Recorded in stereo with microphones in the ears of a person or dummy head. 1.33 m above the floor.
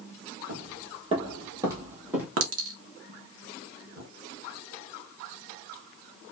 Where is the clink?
80° right, 1.6 m.